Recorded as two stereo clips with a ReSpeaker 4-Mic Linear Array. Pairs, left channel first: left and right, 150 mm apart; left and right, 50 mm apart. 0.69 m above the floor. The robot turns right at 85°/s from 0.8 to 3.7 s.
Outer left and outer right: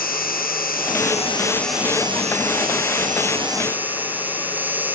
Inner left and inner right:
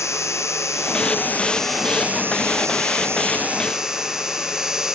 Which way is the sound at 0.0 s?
100° left.